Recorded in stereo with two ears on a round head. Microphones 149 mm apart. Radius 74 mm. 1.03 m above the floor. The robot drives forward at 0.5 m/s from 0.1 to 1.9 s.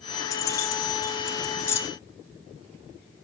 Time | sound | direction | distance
0.3 | keys jangling | 20° left (ahead or behind) | 2.5 m